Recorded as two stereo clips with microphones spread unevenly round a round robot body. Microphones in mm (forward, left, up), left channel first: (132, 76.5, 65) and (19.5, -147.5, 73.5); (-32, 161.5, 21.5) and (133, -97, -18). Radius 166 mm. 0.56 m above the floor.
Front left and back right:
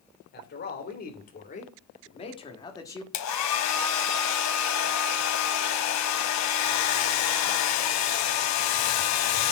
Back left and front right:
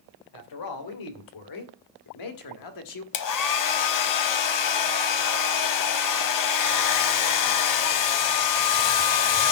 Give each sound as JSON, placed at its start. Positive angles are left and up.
{"t": 0.3, "sound": "a man speaking", "azimuth_deg": 110, "distance_m": 3.0}
{"t": 3.1, "sound": "a hair dryer", "azimuth_deg": 100, "distance_m": 1.2}